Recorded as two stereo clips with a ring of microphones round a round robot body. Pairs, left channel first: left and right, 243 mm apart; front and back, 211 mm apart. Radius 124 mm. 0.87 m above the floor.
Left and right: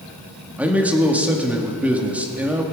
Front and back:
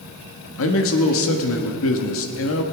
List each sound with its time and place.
0.6 s a man speaking: 5° right, 1.5 m